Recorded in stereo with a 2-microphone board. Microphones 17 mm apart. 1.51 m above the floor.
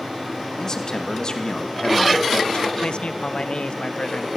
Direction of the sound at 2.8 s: 70° left (ahead or behind).